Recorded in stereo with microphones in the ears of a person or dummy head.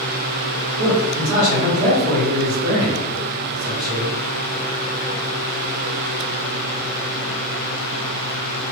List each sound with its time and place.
0.8 s a man speaking: 25° right (ahead or behind), 1.8 m